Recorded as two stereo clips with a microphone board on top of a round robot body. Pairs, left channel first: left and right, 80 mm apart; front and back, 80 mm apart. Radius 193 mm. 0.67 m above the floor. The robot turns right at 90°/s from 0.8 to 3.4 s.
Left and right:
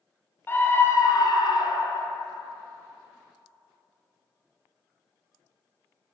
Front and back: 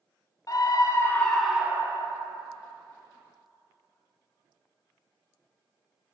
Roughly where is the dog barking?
No dog barking in this recording.